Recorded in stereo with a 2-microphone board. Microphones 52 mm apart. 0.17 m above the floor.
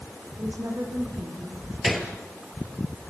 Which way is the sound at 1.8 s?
Centre (ahead or behind).